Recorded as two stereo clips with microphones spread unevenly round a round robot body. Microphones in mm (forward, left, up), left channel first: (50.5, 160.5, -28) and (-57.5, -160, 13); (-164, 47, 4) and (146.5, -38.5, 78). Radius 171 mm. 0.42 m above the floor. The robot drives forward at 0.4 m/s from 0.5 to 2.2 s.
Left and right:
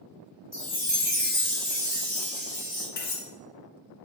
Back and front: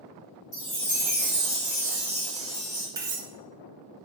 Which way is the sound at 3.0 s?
80° left.